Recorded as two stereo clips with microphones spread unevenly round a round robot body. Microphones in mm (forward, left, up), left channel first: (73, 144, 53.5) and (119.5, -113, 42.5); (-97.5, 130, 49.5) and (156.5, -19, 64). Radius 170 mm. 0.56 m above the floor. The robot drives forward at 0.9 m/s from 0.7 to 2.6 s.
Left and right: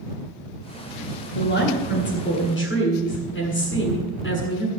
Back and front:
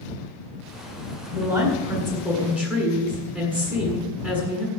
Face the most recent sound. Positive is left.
turn(degrees=55)